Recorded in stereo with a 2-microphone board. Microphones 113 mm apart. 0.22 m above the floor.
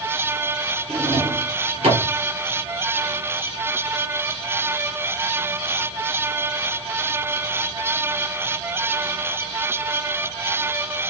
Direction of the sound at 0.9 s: 65° right (ahead or behind).